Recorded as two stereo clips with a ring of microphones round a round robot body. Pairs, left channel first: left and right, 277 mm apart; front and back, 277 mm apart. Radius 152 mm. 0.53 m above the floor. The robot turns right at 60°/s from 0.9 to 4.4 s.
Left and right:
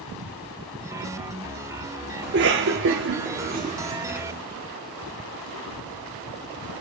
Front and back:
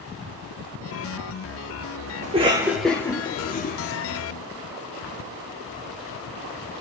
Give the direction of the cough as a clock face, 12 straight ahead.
4 o'clock.